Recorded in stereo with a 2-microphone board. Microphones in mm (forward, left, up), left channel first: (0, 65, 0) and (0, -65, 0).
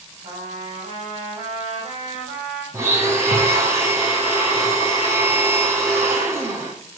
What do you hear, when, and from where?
0.2 s a trumpet: 55° right (ahead or behind), 5 m
2.7 s a blender: 20° right (ahead or behind), 2.5 m